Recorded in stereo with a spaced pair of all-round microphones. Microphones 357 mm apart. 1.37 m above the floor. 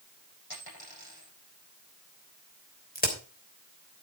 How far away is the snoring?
No snoring in this recording.